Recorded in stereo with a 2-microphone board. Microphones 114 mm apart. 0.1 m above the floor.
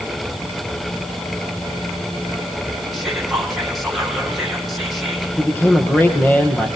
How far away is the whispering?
About 5 m.